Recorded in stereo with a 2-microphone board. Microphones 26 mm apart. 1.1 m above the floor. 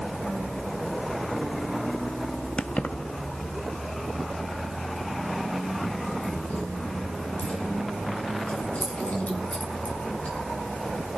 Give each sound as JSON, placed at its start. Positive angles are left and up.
{"t": 2.6, "sound": "keys jangling", "side_deg": 50, "distance_m": 0.6}